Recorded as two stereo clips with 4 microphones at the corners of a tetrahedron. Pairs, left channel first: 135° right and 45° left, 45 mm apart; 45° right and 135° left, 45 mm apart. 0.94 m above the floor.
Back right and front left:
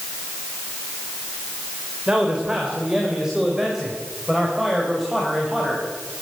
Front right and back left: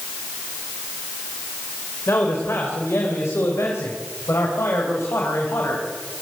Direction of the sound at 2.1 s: 25° right.